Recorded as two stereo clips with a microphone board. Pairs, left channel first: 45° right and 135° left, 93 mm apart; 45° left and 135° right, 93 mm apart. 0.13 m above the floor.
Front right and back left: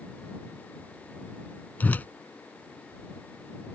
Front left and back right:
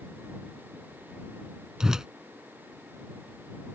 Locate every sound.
1.8 s a whoosh: 65° right